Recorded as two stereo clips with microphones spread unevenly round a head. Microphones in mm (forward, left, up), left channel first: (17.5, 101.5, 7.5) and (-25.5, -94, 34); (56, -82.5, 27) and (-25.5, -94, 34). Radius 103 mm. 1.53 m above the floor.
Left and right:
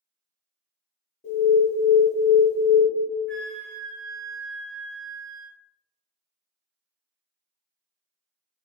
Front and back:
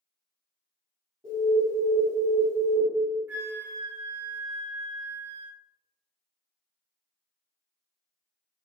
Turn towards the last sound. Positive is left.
turn(degrees=180)